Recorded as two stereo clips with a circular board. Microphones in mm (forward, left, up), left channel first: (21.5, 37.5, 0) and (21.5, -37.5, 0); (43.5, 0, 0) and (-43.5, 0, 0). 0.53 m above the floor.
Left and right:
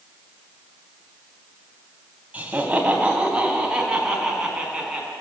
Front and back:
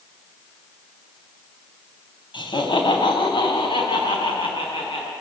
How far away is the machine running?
No machine running in this recording.